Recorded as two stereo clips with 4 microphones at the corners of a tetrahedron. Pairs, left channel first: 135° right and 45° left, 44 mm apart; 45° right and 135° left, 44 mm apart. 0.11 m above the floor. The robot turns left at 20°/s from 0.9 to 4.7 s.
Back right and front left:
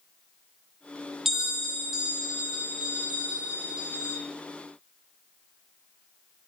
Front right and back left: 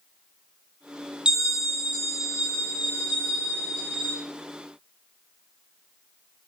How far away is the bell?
About 1.6 m.